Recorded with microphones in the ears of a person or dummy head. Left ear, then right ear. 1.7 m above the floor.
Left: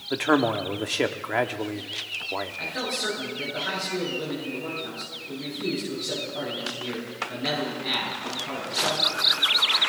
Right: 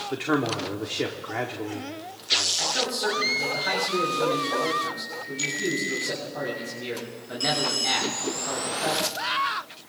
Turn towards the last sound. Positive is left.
turn(degrees=-20)  # may be behind; listen again after turning